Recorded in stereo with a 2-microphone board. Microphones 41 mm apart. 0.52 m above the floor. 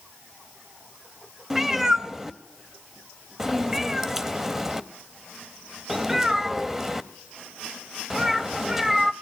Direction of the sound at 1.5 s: 10° right (ahead or behind).